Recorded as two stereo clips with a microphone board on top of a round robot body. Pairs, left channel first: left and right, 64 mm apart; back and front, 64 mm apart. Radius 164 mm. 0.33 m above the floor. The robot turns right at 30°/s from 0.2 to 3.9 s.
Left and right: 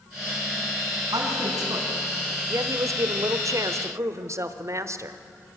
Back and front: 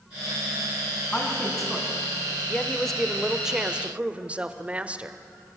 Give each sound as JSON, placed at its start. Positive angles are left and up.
{"t": 1.1, "sound": "a woman speaking", "azimuth_deg": -105, "distance_m": 5.0}
{"t": 2.5, "sound": "a woman speaking", "azimuth_deg": -110, "distance_m": 1.5}